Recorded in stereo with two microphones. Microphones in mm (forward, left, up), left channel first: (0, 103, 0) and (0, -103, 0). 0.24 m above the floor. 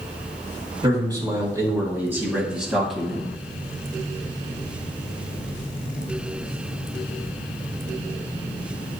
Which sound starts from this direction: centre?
A man speaking, at 0.8 s.